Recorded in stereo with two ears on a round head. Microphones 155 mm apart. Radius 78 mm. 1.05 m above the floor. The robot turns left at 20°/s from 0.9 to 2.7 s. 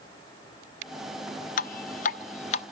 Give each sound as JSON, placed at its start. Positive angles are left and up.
{"t": 1.6, "sound": "dripping", "side_deg": 50, "distance_m": 0.6}